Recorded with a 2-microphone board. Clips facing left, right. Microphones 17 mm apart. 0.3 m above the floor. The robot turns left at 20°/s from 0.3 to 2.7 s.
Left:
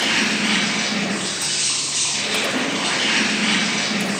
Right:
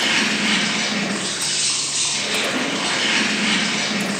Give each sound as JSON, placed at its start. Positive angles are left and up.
{"t": 0.0, "sound": "an insect", "azimuth_deg": -140, "distance_m": 1.3}